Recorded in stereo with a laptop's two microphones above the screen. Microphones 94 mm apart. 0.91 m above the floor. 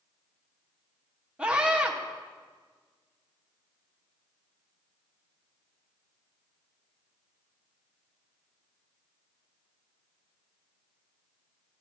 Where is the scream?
10° right (ahead or behind), 0.8 m.